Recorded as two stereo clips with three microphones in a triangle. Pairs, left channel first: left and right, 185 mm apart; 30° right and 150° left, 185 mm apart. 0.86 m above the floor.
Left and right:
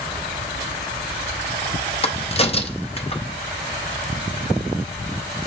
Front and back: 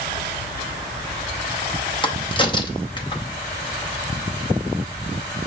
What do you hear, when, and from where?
2.0 s a crack: 30° left, 0.6 m